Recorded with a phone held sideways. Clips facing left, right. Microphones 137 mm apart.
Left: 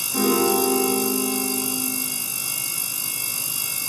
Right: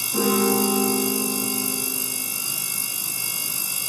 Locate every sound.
0.1 s a piano: 10° right (ahead or behind), 5 m